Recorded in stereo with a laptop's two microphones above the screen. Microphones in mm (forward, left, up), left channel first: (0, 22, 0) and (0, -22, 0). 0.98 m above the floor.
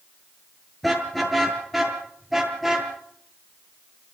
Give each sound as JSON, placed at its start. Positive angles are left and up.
{"t": 0.8, "sound": "a car horn", "side_deg": 0, "distance_m": 7.0}